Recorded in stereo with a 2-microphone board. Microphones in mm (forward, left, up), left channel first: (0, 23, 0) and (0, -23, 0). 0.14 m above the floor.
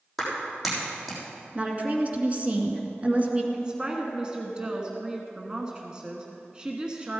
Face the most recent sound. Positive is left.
turn(degrees=-20)  # may be behind; listen again after turning